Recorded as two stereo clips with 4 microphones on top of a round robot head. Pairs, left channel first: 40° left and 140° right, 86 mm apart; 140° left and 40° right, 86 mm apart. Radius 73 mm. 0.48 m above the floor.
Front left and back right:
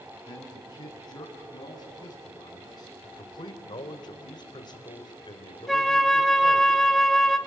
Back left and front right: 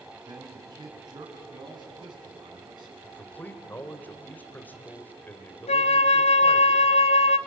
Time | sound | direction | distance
0.3 | a man speaking | straight ahead | 4.5 m
3.0 | a man speaking | 70° left | 2.5 m
5.7 | a flute | 130° left | 0.6 m